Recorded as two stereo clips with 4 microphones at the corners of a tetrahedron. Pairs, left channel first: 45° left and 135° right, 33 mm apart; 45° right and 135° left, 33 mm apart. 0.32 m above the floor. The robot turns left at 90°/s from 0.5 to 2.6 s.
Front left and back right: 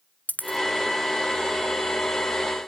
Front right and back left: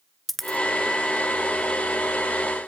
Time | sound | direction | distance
0.3 | a dropped coin | 40° left | 1.0 m